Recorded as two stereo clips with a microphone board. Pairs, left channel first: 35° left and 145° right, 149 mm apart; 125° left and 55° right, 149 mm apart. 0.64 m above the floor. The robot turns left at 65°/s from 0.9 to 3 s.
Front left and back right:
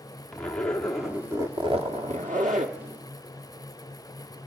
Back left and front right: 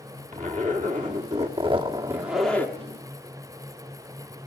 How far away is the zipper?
About 1.5 m.